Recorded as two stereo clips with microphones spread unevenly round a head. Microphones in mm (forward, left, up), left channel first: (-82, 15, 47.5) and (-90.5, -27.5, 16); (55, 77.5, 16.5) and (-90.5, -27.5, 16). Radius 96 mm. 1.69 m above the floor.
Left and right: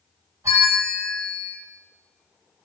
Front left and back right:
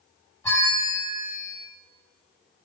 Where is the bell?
25° right, 1.2 m.